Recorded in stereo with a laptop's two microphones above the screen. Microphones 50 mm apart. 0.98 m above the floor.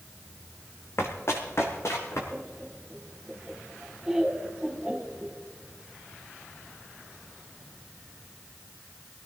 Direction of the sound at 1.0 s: 55° left (ahead or behind).